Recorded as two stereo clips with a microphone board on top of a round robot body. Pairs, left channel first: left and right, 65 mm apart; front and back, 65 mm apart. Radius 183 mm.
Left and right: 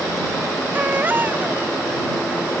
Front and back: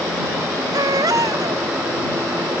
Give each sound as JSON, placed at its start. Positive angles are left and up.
{"t": 0.7, "sound": "a baby crying", "azimuth_deg": -155}